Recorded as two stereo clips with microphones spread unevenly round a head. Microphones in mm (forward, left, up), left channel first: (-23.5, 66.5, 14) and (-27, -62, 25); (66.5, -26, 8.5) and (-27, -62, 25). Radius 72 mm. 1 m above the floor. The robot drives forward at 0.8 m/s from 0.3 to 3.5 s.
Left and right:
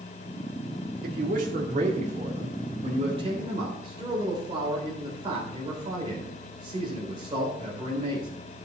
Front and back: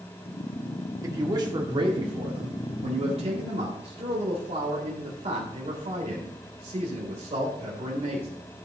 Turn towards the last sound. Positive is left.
turn(degrees=-145)